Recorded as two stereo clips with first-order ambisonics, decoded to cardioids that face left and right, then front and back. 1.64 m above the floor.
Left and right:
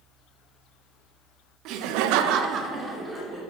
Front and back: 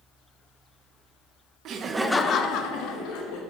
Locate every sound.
1.6 s laughter: 130° right, 0.8 m; by 3.4 s 10° right, 1.6 m